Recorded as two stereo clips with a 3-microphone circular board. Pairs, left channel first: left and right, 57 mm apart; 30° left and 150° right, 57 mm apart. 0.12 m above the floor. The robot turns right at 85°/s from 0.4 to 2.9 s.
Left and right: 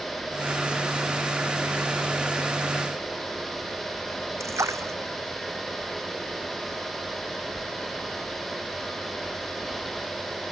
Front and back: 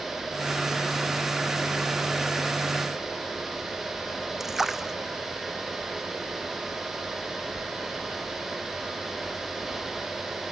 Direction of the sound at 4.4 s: 65° right.